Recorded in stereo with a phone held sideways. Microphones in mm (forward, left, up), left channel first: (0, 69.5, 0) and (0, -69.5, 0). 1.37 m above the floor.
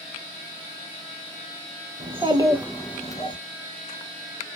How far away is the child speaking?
About 0.7 m.